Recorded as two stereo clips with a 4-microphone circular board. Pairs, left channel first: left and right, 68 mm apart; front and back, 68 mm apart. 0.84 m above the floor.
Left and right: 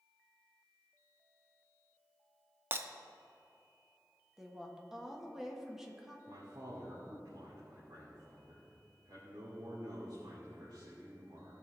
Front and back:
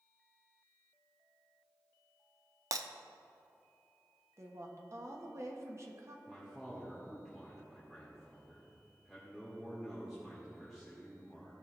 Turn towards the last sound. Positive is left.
turn(degrees=-85)